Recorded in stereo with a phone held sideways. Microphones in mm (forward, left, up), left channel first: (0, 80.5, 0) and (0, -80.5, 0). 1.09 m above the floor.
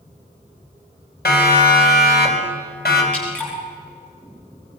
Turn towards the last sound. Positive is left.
turn(degrees=10)  # may be behind; listen again after turning